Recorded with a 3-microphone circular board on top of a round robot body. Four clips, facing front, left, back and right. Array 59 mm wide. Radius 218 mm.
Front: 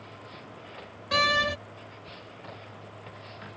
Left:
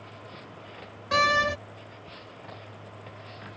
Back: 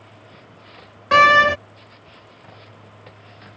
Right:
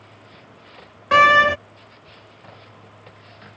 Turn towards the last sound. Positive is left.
turn(degrees=-140)